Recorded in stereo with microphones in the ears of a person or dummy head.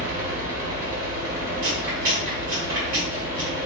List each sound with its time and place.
0.0 s a fan: 35° right (ahead or behind), 1.8 m
1.6 s chewing: 35° right (ahead or behind), 1.5 m